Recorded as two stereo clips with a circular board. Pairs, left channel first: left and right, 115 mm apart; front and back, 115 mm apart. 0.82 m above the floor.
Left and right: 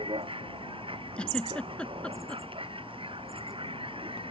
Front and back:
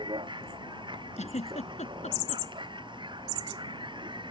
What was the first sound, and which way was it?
A vehicle, 130° right.